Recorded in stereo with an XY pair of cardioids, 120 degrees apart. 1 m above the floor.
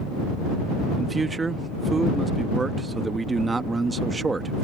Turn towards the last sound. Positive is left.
turn(degrees=-20)